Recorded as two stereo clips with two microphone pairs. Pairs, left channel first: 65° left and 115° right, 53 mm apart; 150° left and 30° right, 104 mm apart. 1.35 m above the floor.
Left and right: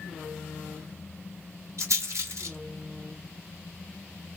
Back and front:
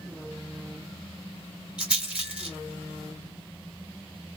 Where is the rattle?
110° right, 2.5 m.